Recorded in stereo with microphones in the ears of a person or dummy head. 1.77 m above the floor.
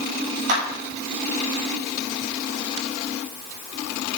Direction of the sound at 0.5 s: 55° right (ahead or behind).